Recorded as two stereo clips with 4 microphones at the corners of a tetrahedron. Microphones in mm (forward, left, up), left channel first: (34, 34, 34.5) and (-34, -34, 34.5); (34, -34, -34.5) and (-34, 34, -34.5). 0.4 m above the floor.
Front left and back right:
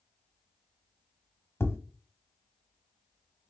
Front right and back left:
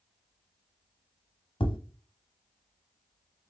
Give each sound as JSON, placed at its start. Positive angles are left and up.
{"t": 1.6, "sound": "tapping", "azimuth_deg": -15, "distance_m": 0.9}